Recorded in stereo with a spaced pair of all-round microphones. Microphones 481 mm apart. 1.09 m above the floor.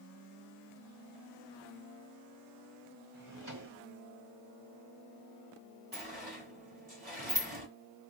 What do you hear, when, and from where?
3.1 s a drawer: 40° right (ahead or behind), 1.1 m
5.9 s a sliding door: 65° right (ahead or behind), 1.7 m